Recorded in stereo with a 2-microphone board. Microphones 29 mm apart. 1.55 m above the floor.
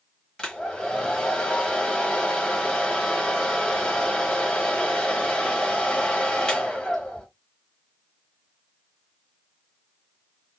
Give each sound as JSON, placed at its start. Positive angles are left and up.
{"t": 0.4, "sound": "a hair dryer", "side_deg": 25, "distance_m": 1.2}